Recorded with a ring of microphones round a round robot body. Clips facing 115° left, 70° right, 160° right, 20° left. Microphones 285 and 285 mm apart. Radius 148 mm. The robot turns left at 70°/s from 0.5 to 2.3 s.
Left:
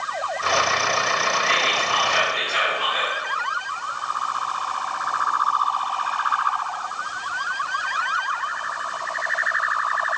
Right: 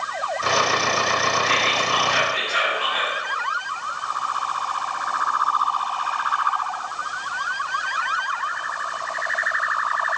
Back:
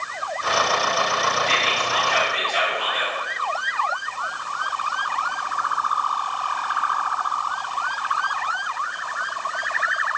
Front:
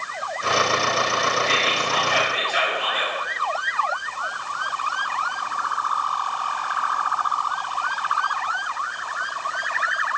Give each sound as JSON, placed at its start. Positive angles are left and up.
{"t": 1.5, "sound": "whispering", "azimuth_deg": 145, "distance_m": 1.5}